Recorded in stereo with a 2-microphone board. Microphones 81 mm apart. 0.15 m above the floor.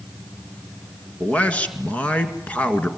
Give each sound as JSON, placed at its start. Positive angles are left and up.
{"t": 1.2, "sound": "a man speaking", "side_deg": 20, "distance_m": 1.8}